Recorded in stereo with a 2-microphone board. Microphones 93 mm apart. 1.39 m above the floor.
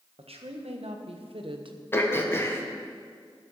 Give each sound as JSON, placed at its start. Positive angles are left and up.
{"t": 0.2, "sound": "a woman speaking", "side_deg": -80, "distance_m": 1.4}
{"t": 1.9, "sound": "throat clearing", "side_deg": 25, "distance_m": 1.1}